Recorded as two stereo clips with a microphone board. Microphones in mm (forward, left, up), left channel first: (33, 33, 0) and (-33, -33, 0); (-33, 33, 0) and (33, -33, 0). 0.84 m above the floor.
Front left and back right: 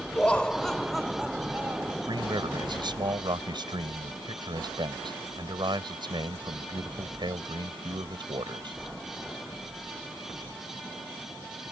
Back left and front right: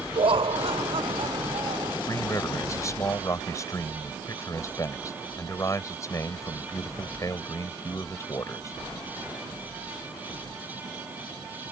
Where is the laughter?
30° right; by 2.0 s 75° right.